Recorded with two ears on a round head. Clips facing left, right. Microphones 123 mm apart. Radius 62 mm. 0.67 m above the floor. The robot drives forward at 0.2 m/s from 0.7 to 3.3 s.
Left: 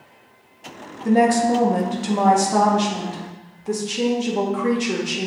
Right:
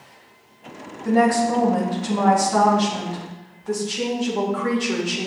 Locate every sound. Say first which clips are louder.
1.1 s a woman speaking: left 2 dB; 25° left (ahead or behind), 0.7 m